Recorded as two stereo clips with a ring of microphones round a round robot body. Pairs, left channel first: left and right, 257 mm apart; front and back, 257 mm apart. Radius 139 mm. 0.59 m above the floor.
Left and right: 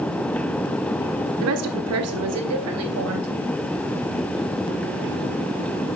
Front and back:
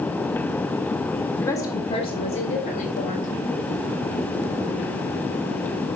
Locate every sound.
1.4 s a woman speaking: 80° right, 1.4 m; by 3.3 s 65° right, 3.5 m